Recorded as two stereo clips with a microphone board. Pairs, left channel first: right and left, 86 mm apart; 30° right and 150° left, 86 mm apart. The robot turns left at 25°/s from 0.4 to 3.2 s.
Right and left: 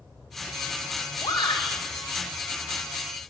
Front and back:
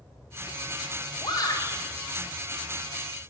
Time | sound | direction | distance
1.2 | a shout | 60° right | 2 m